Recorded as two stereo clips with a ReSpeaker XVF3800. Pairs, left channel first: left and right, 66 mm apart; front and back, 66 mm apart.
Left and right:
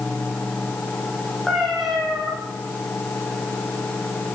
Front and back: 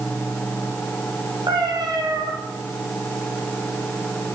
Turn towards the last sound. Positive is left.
turn(degrees=180)